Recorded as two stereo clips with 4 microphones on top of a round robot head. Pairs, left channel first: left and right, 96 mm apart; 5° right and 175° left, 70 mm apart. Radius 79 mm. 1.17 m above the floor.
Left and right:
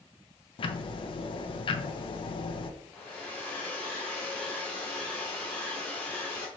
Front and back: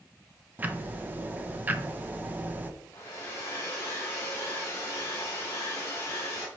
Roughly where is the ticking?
Left.